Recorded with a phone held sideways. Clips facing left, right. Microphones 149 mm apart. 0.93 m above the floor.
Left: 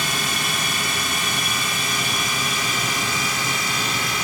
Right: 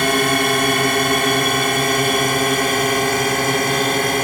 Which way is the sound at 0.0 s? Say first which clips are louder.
Right 11 dB; 65° right (ahead or behind).